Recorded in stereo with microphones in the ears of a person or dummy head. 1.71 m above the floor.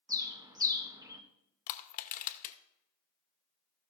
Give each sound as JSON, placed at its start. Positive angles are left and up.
{"t": 0.1, "sound": "a bird", "side_deg": -15, "distance_m": 0.9}
{"t": 1.7, "sound": "crushing", "side_deg": 45, "distance_m": 0.9}